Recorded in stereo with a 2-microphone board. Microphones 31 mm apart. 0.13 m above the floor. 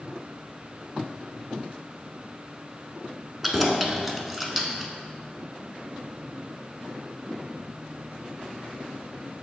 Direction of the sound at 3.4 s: 10° right (ahead or behind).